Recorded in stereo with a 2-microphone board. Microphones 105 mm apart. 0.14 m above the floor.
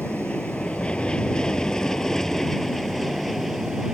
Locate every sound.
0.0 s an aircraft: 15° left (ahead or behind); by 4.0 s 5° right (ahead or behind)